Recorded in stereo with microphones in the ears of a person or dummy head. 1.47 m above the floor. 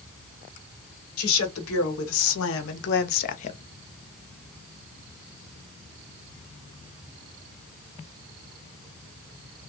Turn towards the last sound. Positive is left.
turn(degrees=30)  # may be behind; listen again after turning